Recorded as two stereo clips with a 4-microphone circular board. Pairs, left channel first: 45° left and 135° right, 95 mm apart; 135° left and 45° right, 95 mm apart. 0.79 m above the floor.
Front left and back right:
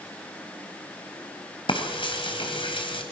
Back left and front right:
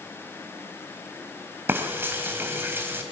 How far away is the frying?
About 2.5 m.